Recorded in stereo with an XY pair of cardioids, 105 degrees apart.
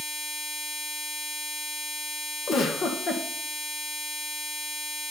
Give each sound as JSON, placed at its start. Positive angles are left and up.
{"t": 2.5, "sound": "a giggle", "azimuth_deg": 55, "distance_m": 1.4}